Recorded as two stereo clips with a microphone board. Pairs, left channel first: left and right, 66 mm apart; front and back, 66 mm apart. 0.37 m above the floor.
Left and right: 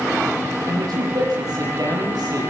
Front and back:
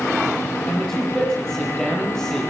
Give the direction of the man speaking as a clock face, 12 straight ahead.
3 o'clock.